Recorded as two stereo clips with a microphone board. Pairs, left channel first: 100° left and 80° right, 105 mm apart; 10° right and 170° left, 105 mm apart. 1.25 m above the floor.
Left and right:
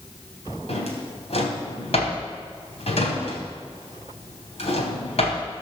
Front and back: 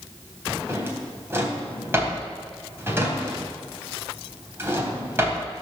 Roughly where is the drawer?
Left.